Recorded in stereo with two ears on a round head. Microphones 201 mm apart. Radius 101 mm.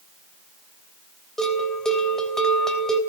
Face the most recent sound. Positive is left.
turn(degrees=0)  # may be behind; listen again after turning